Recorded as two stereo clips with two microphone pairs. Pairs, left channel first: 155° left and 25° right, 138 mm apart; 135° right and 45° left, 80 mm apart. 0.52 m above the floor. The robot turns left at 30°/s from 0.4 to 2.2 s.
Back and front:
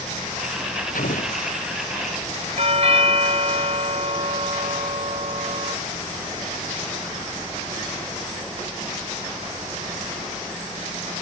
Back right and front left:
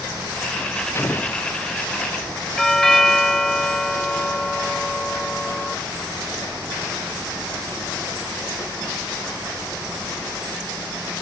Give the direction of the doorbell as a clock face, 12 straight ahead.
2 o'clock.